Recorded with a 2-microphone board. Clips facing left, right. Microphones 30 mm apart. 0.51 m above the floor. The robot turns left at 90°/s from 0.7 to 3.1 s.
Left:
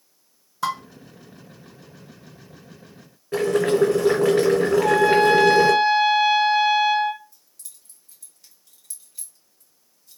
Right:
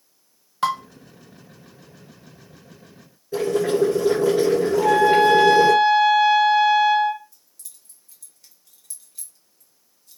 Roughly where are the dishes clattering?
Right.